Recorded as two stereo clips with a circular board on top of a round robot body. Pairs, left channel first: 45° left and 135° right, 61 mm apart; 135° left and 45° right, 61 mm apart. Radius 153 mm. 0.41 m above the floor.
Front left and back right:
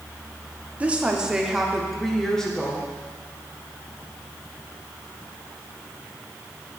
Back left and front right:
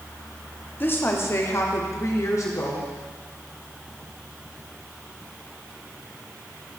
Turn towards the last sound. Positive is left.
turn(degrees=120)